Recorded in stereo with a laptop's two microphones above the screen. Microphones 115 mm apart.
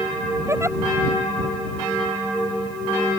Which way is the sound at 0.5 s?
25° right (ahead or behind).